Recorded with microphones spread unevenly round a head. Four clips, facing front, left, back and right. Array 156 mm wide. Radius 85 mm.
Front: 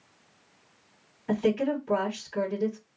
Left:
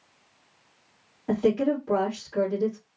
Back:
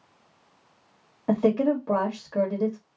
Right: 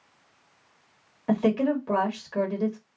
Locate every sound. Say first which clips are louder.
1.3 s a woman speaking: even, back 4 dB; 160° right, 1.9 m